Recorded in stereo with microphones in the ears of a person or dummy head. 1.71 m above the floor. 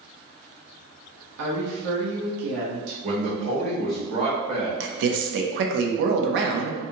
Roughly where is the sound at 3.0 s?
Right.